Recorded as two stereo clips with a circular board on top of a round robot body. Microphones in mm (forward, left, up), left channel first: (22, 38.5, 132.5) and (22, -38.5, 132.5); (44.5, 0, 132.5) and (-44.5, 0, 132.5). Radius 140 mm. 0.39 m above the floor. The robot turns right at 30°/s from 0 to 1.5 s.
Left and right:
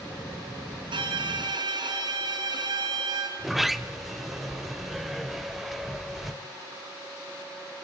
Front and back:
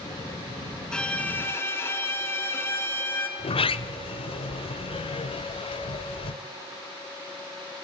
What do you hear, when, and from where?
0.9 s a violin: 85° right, 4.5 m; by 3.3 s 65° right, 4.5 m
3.4 s a sliding door: 5° right, 1.0 m